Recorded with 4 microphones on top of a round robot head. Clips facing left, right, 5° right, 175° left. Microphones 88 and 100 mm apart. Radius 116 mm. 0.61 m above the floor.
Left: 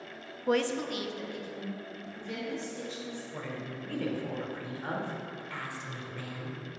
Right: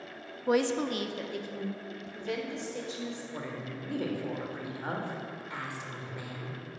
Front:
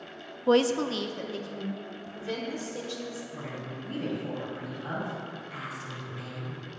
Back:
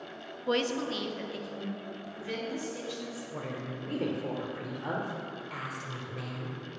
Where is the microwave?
No microwave in this recording.